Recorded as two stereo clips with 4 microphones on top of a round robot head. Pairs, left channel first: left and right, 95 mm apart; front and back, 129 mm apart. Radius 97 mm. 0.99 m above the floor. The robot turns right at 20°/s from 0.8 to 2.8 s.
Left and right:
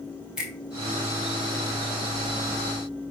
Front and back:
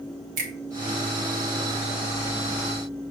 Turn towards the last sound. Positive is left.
turn(degrees=-135)